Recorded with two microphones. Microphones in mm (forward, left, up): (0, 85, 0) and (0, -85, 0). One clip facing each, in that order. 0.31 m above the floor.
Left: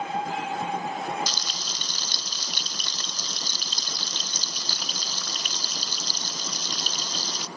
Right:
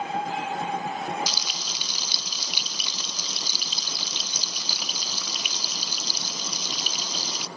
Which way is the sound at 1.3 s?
5° right (ahead or behind).